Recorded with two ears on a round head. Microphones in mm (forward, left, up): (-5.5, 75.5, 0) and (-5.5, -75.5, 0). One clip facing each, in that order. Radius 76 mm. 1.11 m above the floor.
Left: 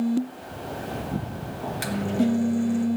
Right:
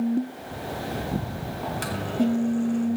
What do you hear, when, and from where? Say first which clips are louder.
1.6 s a microwave: left 3 dB; 10° left (ahead or behind), 1.1 m